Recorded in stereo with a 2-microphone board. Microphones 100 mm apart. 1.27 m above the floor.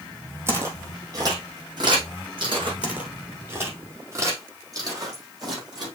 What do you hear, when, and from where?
0.5 s footsteps: 25° right (ahead or behind), 2 m; by 2.7 s 55° right (ahead or behind), 3.5 m
2.8 s footsteps: 10° right (ahead or behind), 2 m; by 5.9 s 40° right (ahead or behind), 4 m